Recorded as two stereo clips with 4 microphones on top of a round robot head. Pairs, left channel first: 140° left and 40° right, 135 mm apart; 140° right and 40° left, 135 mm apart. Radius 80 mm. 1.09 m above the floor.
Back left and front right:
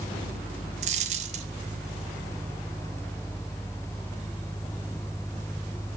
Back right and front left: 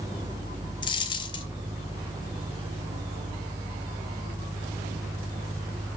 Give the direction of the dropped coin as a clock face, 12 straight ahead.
3 o'clock.